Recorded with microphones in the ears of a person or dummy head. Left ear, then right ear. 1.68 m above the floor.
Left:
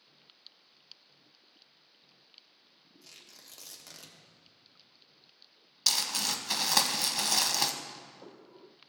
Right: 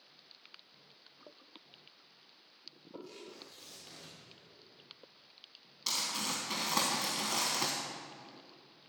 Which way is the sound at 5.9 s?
40° left (ahead or behind).